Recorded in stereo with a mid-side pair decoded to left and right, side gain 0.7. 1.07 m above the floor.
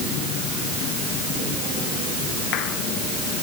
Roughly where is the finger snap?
I don't hear a finger snap.